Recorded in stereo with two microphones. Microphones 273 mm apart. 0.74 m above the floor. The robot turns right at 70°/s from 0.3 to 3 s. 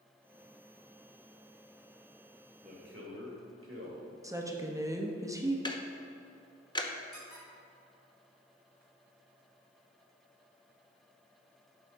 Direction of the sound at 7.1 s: 35° left (ahead or behind).